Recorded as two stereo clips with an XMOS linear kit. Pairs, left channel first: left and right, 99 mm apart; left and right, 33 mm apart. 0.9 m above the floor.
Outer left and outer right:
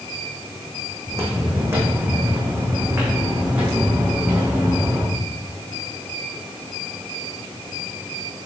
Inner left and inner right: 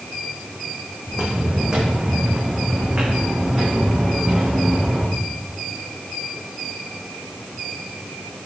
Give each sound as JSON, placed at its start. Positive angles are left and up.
{"t": 1.1, "sound": "footsteps", "side_deg": -25, "distance_m": 3.0}